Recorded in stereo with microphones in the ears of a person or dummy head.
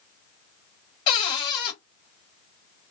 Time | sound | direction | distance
1.1 | a cupboard door | 25° left (ahead or behind) | 1.2 m